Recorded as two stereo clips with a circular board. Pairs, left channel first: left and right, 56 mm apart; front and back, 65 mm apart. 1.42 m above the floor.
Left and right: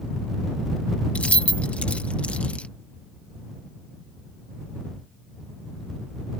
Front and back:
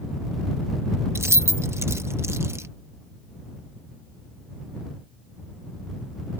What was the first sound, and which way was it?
Keys jangling, 150° left.